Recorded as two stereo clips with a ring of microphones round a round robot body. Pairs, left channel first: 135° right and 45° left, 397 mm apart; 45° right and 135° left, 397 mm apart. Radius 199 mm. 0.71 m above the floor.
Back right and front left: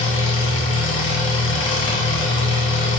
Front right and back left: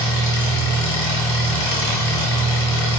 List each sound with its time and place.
0.0 s an engine running: 75° right, 1.0 m